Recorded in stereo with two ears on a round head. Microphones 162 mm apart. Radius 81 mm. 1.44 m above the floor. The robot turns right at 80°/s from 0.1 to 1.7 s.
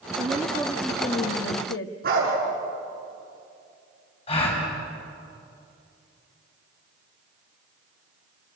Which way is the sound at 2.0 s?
55° right (ahead or behind).